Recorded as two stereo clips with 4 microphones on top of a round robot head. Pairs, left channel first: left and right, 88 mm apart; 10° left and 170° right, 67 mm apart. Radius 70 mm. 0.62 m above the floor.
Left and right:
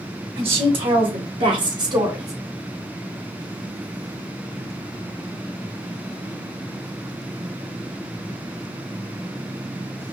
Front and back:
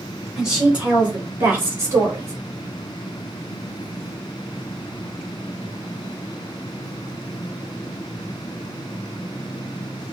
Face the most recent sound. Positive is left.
turn(degrees=-135)